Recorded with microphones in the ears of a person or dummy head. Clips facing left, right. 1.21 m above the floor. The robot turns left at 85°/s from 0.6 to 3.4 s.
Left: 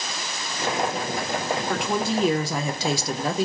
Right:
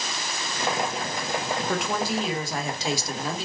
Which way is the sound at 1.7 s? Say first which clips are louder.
Left 2 dB; 175° right.